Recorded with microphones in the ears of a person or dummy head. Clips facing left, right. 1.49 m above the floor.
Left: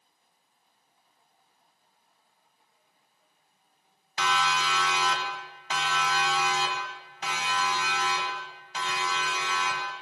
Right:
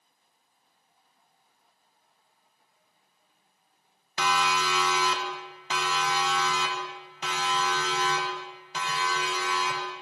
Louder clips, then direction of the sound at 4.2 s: Right 1 dB; 85° right.